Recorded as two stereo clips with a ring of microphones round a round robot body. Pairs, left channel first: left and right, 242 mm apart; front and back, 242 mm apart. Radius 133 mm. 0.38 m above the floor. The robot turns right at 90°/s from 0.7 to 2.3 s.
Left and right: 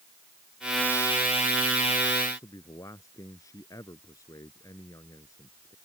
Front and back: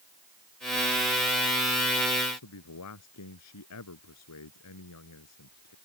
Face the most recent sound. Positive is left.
turn(degrees=10)